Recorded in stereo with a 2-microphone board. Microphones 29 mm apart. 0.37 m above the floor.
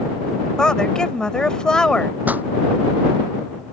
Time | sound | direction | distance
0.6 | a woman speaking | 25° left (ahead or behind) | ?
2.2 | a pop | 75° right (ahead or behind) | ?